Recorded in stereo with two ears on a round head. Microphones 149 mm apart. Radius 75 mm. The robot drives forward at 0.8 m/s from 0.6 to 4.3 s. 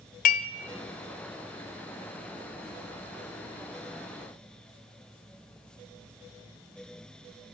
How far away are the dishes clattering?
About 0.7 m.